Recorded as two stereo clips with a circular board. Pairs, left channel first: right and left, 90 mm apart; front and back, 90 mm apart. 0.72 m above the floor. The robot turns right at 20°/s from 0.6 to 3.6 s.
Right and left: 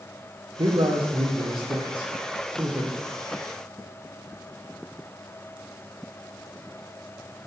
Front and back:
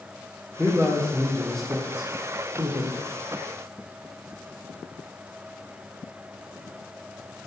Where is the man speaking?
105° left, 1.7 m; by 3.0 s 150° left, 1.7 m.